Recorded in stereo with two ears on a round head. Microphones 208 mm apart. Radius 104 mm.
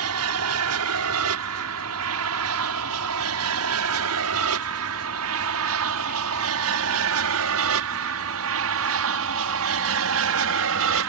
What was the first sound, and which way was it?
An aircraft, 70° right (ahead or behind).